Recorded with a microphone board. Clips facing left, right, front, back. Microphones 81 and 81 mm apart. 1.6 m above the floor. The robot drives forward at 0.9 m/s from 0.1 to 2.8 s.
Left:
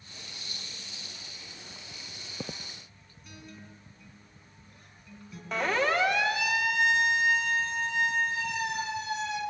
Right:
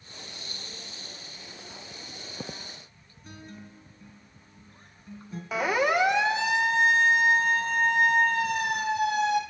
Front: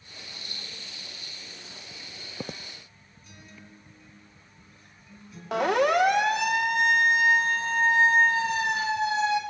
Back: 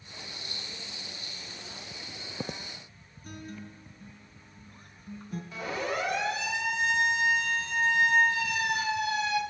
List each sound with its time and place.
3.2 s a guitar: 145° right, 4 m
5.5 s a siren: 5° right, 2 m; by 9.4 s 65° right, 4 m